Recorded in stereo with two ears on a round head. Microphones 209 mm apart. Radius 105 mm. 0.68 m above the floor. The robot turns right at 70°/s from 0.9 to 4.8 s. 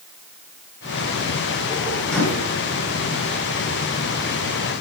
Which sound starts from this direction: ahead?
A microwave, at 2.1 s.